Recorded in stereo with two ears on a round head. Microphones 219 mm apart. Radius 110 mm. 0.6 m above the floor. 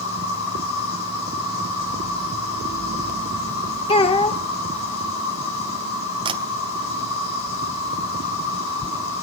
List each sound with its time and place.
0.0 s an insect: 60° left (ahead or behind), 7.5 m
3.9 s a child speaking: 25° left (ahead or behind), 1.3 m
6.2 s a camera shutter: 20° right (ahead or behind), 2.5 m